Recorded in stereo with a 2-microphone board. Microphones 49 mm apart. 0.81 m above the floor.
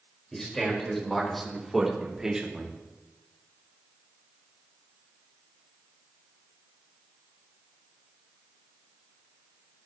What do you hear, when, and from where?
0.3 s a man speaking: 10° left (ahead or behind), 4.5 m; by 2.8 s 25° right (ahead or behind), 1.8 m